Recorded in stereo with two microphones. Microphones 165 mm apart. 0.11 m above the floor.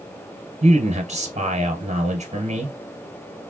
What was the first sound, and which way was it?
A man speaking, 45° right (ahead or behind).